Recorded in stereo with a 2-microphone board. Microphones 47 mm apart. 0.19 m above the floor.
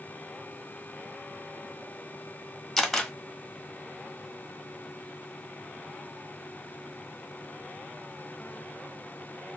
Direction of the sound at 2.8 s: 5° left (ahead or behind).